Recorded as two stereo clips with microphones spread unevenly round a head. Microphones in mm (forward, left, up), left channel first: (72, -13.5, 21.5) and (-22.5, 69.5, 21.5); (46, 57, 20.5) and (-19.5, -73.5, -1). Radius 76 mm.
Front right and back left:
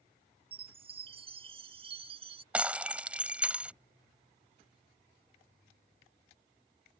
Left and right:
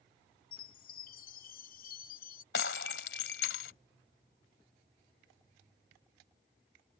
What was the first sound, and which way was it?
A chime, 95° left.